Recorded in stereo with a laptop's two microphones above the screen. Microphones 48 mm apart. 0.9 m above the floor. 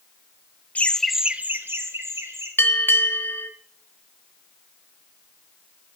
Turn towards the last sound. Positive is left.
turn(degrees=50)  # may be behind; listen again after turning